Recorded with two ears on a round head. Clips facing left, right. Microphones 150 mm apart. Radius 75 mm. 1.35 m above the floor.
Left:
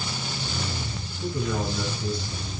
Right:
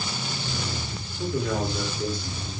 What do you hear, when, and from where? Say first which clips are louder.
1.2 s a man speaking: right 2 dB; 40° right (ahead or behind), 4.5 m